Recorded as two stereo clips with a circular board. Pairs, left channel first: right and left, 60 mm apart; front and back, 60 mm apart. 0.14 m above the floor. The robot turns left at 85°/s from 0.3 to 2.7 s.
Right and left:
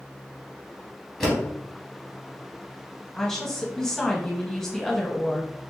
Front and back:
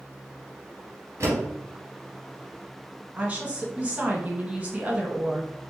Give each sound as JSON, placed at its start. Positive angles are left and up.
{"t": 1.2, "sound": "a door slam", "azimuth_deg": -165, "distance_m": 1.9}
{"t": 3.2, "sound": "a woman speaking", "azimuth_deg": -160, "distance_m": 1.1}